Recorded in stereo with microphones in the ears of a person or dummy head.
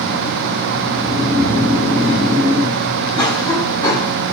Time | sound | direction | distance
0.9 | snoring | 10° right (ahead or behind) | 3.5 m
3.1 | a cough | 20° left (ahead or behind) | 2.5 m